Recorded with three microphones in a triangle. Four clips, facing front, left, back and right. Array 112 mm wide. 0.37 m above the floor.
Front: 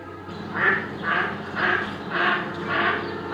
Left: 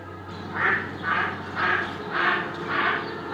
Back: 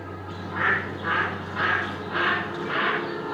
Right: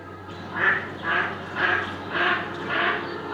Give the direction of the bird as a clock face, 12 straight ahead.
1 o'clock.